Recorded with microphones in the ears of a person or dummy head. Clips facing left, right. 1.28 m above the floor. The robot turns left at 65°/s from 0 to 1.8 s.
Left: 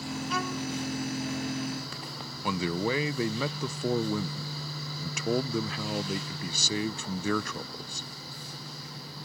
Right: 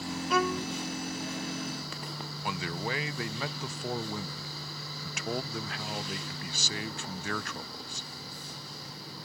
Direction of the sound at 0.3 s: 45° right (ahead or behind).